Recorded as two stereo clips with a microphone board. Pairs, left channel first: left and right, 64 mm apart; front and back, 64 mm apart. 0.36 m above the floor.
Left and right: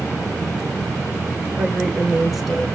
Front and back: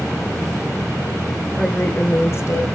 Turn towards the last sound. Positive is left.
turn(degrees=5)